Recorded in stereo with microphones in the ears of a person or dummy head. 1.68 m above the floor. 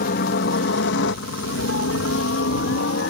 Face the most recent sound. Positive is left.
turn(degrees=55)  # may be behind; listen again after turning